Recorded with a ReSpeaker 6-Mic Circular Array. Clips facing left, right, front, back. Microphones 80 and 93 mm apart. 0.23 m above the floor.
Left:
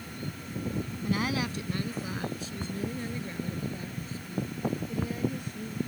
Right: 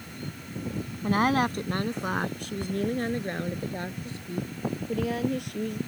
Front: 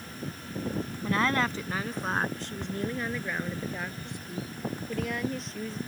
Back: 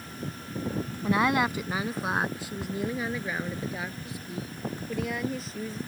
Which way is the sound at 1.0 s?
110° right.